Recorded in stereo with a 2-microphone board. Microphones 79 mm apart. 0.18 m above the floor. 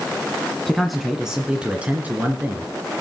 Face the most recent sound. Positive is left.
turn(degrees=-25)  # may be behind; listen again after turning